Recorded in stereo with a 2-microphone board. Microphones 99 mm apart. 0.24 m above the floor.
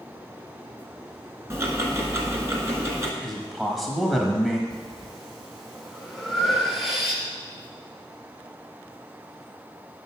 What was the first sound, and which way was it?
Ticking, 30° right (ahead or behind).